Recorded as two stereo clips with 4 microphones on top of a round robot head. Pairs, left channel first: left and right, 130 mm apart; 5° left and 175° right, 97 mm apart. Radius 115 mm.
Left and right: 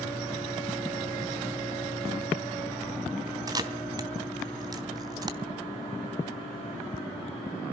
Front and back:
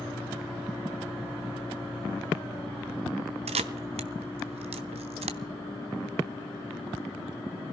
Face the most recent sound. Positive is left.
turn(degrees=-155)